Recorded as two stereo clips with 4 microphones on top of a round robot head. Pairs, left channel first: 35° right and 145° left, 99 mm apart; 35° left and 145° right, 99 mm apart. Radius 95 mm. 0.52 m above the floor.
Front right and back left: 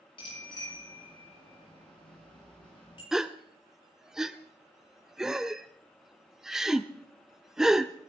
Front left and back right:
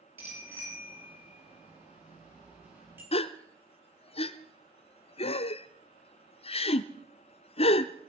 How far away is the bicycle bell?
About 9.5 m.